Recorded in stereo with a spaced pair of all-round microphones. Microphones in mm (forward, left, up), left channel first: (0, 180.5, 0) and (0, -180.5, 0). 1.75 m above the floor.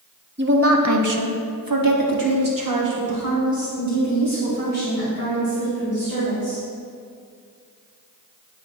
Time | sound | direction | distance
0.4 | a woman speaking | 30° right (ahead or behind) | 0.9 m